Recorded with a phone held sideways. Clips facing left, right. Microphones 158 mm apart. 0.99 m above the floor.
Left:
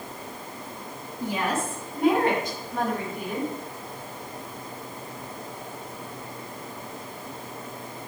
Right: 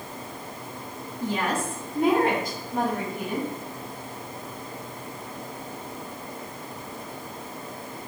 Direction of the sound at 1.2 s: 15° left (ahead or behind).